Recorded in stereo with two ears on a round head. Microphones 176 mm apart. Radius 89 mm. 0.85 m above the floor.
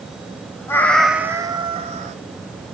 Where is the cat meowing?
15° left (ahead or behind), 0.7 m; by 2.2 s 35° right (ahead or behind), 0.8 m.